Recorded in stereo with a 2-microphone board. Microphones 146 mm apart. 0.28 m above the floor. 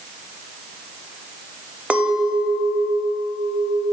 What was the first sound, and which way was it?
A clink, 10° right (ahead or behind).